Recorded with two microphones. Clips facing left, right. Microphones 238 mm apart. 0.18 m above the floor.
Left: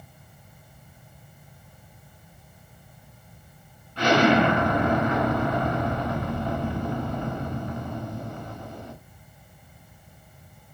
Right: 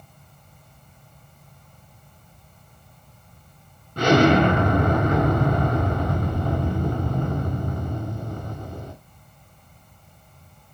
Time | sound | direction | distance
4.0 | an explosion | 50° right (ahead or behind) | 1.9 m